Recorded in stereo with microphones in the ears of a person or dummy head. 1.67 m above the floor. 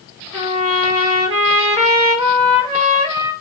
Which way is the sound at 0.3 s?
30° right (ahead or behind).